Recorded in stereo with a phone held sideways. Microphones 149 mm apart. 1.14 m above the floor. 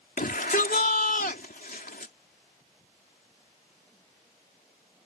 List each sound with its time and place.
0.2 s a shout: 75° left (ahead or behind)